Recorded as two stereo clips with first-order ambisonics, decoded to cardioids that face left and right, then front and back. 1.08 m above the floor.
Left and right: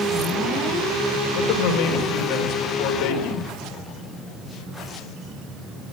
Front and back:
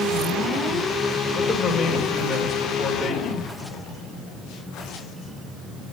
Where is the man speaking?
75° left, 3.5 m.